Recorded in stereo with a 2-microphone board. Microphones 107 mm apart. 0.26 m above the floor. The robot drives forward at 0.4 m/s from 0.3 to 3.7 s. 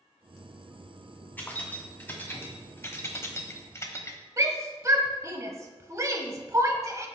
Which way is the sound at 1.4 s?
15° left (ahead or behind).